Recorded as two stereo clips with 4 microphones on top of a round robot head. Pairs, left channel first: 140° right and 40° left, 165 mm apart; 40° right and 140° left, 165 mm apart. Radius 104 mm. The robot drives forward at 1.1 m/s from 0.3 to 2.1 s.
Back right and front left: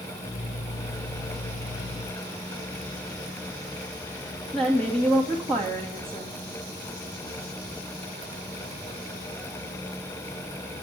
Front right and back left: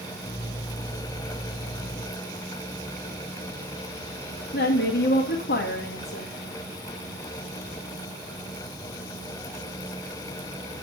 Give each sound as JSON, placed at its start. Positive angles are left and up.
{"t": 4.5, "sound": "a woman speaking", "azimuth_deg": -55, "distance_m": 2.0}